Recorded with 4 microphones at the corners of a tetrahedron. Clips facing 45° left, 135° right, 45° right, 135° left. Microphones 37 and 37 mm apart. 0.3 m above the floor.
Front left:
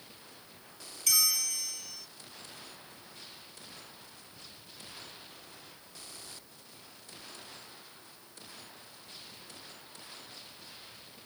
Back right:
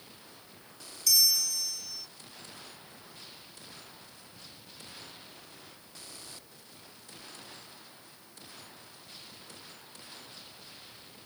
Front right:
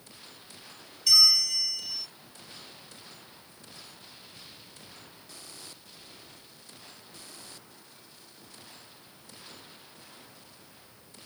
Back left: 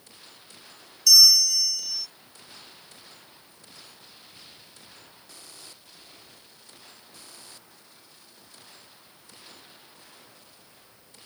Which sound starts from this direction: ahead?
A bell, at 1.1 s.